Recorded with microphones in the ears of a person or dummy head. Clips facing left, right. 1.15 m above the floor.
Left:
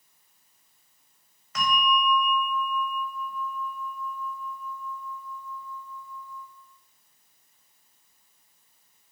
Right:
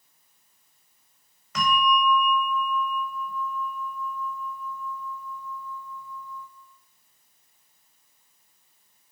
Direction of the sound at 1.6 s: 70° right (ahead or behind).